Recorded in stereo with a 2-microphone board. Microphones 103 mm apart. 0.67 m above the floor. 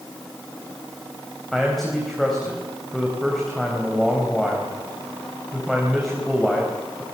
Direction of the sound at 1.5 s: Centre (ahead or behind).